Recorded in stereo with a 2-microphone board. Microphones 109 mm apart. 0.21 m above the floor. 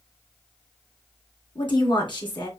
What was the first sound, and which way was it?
A woman speaking, 50° left (ahead or behind).